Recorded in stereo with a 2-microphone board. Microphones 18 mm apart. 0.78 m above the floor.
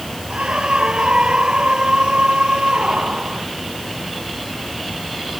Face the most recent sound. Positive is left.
turn(degrees=-75)  # may be behind; listen again after turning